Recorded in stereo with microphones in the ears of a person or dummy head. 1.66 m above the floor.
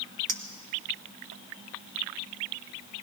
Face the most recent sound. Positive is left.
turn(degrees=-45)  # may be behind; listen again after turning